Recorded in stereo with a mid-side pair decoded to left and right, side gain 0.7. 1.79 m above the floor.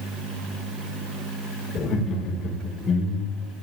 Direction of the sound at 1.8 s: 45° left.